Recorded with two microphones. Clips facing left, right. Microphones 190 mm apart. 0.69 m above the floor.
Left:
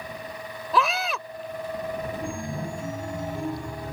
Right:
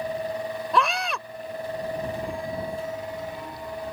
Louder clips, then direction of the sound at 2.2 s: Right 1 dB; 45° left (ahead or behind).